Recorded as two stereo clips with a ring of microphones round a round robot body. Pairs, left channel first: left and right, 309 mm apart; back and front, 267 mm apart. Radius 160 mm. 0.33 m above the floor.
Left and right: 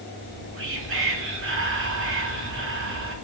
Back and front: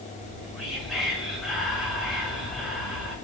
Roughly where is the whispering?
Right.